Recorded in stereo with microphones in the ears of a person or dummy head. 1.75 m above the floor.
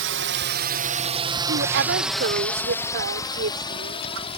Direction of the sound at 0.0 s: 60° right (ahead or behind).